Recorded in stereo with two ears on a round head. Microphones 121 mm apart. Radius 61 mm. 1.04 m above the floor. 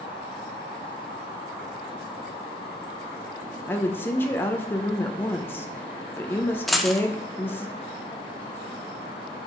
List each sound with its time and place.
3.7 s a woman speaking: 15° left (ahead or behind), 0.6 m
6.7 s a dropped coin: centre (ahead or behind), 0.6 m